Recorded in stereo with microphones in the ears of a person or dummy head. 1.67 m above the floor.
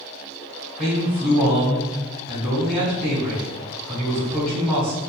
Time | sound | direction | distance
0.8 | a man speaking | centre (ahead or behind) | 1.3 m